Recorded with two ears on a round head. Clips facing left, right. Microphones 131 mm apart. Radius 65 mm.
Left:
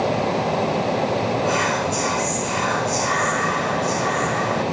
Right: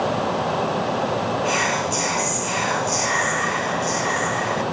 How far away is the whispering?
About 0.9 m.